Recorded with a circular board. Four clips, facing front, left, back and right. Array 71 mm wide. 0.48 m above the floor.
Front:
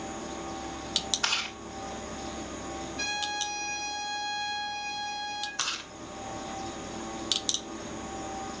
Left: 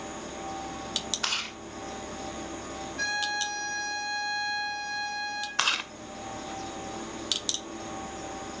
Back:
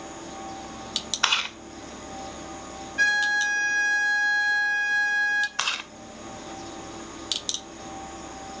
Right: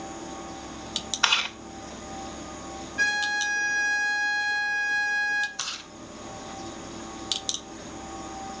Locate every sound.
1.2 s chewing: 135° right, 1.9 m
3.0 s a violin: 145° right, 3 m
5.6 s chewing: 125° left, 0.9 m